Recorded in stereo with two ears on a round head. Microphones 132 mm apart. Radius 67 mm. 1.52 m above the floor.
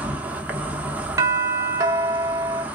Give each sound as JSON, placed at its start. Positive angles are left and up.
{"t": 0.0, "sound": "an insect", "side_deg": -10, "distance_m": 0.8}
{"t": 1.2, "sound": "a doorbell", "side_deg": -20, "distance_m": 0.6}